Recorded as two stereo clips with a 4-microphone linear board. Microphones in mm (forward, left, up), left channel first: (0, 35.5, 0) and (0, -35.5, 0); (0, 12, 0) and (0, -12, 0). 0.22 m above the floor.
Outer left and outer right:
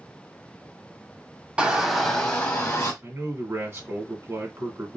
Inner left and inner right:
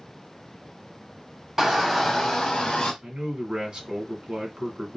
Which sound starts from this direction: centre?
A shout, at 1.6 s.